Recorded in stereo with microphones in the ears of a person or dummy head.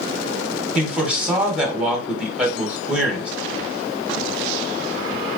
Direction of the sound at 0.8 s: 10° right (ahead or behind).